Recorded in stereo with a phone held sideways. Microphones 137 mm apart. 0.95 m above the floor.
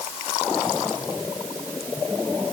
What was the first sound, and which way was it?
Only background noise.